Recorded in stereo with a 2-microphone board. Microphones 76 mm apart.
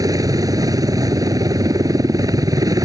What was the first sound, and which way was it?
A helicopter, 55° right (ahead or behind).